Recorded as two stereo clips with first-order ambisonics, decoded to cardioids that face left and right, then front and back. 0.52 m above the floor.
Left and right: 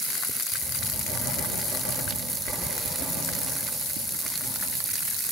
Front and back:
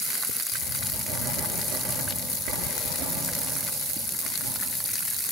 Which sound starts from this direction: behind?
Writing, at 0.5 s.